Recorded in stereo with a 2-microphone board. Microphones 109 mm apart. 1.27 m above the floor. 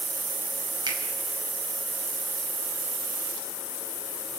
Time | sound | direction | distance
0.9 | a finger snap | 40° right (ahead or behind) | 5.5 m